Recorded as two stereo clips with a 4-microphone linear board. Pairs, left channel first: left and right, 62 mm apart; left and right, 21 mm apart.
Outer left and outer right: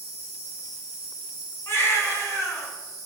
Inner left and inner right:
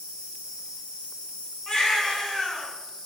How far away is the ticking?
I don't hear ticking.